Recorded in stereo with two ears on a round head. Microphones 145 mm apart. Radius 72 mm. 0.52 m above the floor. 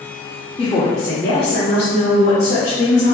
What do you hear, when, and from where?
0.6 s a woman speaking: 25° left (ahead or behind), 0.8 m; by 3.1 s 70° left (ahead or behind), 2.5 m